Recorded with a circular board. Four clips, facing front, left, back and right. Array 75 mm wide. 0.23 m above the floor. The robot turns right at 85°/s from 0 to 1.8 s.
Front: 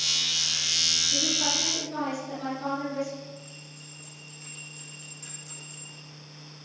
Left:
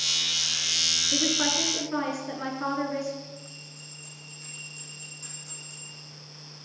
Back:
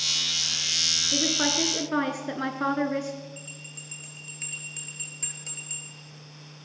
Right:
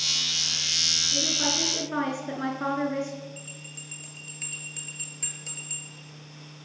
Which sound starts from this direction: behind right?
A bell, at 3.4 s.